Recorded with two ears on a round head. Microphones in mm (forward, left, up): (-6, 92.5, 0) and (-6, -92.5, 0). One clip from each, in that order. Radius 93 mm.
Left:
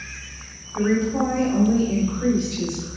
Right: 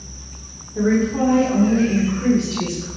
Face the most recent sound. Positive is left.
turn(degrees=-5)  # may be behind; listen again after turning